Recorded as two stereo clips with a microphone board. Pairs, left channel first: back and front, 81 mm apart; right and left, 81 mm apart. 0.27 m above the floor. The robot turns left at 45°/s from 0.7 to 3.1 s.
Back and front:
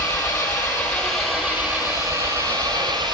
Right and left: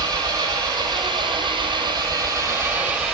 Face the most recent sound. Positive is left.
turn(degrees=5)